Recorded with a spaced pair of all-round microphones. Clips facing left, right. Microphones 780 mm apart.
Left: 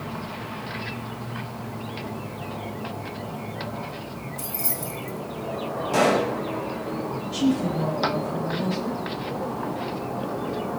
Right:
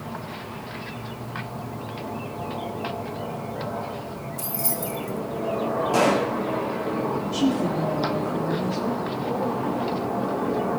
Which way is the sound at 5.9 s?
50° left (ahead or behind).